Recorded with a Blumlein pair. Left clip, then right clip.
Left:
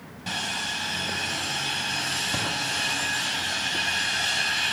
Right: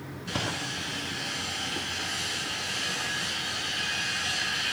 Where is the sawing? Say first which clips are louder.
Left 3 dB; 50° left, 5.5 m.